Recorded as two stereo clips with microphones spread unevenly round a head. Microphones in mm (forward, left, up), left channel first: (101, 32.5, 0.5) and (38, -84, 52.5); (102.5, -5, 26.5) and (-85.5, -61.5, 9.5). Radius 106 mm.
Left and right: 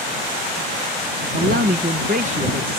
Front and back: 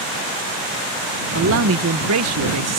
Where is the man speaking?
150° right; by 2.8 s 175° right.